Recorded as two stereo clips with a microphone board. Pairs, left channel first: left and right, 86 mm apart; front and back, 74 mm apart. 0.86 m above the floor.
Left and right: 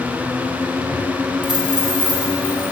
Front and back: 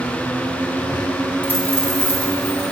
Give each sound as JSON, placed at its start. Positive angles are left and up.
{"t": 1.4, "sound": "a dropped coin", "azimuth_deg": -65, "distance_m": 2.0}